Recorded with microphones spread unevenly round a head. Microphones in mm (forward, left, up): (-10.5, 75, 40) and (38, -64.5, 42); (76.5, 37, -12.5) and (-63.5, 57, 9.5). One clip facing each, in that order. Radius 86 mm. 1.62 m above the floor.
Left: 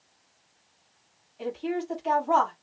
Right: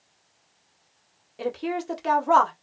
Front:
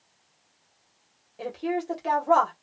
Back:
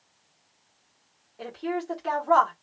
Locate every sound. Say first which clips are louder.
1.4 s a woman speaking: right 2 dB, front 2 dB; 85° right, 1.1 m